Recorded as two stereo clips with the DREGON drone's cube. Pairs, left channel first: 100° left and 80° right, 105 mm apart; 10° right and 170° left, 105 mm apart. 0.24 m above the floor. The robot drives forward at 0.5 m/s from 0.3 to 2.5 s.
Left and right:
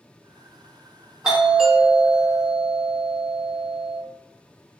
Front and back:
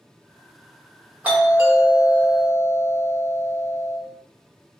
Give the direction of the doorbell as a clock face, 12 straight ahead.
5 o'clock.